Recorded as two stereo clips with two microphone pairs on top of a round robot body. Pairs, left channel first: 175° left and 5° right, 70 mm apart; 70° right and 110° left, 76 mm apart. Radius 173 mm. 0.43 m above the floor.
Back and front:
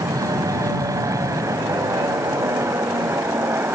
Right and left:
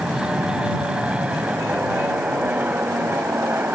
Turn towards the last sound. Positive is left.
turn(degrees=45)